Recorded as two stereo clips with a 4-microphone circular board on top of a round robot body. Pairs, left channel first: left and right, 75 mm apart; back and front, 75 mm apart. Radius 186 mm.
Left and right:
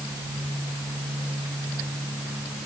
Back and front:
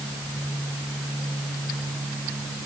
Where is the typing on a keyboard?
No typing on a keyboard in this recording.